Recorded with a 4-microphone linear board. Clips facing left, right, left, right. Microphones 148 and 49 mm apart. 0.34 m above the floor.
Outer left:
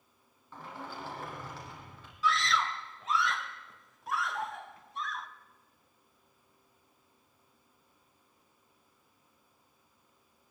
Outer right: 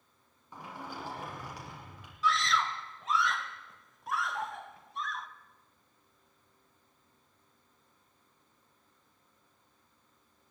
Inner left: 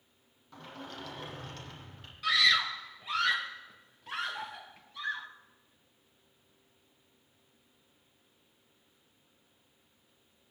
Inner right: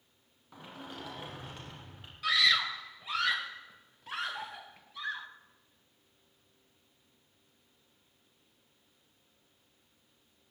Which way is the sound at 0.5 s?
15° right (ahead or behind).